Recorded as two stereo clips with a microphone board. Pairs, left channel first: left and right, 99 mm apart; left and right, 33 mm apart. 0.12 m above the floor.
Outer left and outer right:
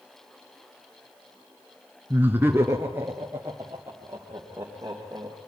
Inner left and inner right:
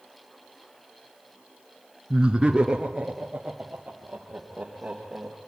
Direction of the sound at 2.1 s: 20° right (ahead or behind).